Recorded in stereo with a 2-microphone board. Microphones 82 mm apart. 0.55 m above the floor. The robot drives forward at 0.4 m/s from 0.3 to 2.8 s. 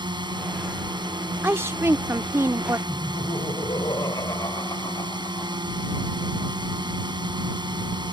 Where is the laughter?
55° left (ahead or behind).